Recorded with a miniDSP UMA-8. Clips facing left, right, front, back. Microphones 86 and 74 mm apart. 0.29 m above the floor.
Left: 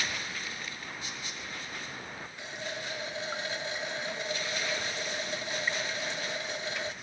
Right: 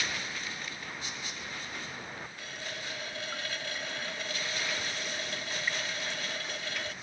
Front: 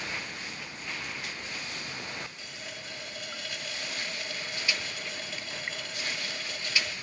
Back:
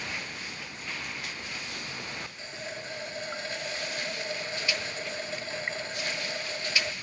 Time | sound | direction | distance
2.4 | a running tap | 145° left | 0.7 m